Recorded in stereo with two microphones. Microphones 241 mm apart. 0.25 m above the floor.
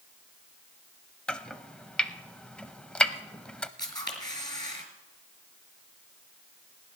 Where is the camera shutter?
15° left (ahead or behind), 2.5 m.